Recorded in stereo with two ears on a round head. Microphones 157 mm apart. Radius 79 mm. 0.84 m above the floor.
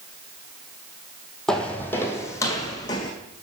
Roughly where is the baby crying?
No baby crying in this recording.